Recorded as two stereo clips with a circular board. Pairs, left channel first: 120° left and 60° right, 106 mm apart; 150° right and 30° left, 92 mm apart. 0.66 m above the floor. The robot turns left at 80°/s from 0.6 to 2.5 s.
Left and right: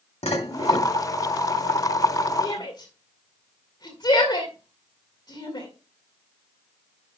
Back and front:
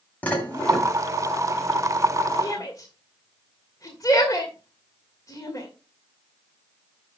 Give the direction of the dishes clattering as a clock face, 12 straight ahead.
7 o'clock.